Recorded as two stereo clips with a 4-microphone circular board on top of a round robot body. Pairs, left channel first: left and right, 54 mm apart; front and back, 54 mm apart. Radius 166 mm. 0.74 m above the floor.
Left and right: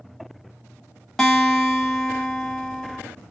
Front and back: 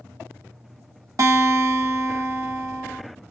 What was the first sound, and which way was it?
A guitar, 175° left.